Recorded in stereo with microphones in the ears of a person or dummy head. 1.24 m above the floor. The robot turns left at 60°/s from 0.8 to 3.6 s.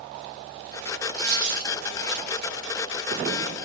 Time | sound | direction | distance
1.1 | a dropped coin | 45° right (ahead or behind) | 0.7 m